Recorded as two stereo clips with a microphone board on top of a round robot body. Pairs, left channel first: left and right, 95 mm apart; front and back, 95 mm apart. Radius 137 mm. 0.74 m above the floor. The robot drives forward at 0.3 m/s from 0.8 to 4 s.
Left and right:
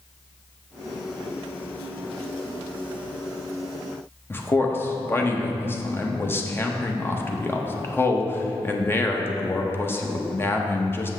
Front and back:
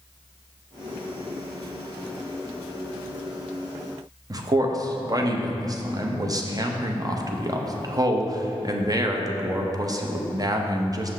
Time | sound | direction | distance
4.3 | a man speaking | 150° left | 1.0 m